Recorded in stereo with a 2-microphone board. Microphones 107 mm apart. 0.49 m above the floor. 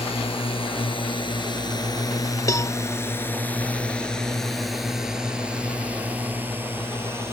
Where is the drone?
60° left (ahead or behind); by 7.3 s 25° right (ahead or behind).